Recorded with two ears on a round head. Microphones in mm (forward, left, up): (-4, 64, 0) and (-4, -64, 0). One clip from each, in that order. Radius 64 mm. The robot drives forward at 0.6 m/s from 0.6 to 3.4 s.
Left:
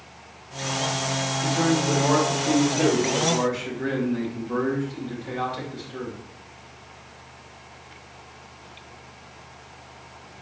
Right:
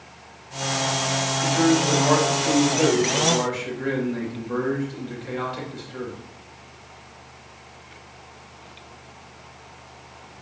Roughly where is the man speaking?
Right.